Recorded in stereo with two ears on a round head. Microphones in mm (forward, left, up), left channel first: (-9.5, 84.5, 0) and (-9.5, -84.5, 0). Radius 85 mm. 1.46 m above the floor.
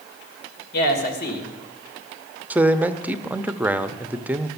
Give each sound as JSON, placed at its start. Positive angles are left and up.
{"t": 0.7, "sound": "a man speaking", "side_deg": 50, "distance_m": 2.0}
{"t": 2.5, "sound": "a man speaking", "side_deg": -10, "distance_m": 0.6}